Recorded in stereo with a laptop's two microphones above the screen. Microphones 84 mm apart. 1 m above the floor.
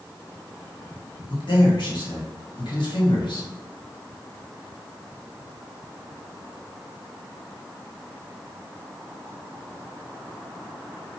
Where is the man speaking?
70° left (ahead or behind), 1.5 m.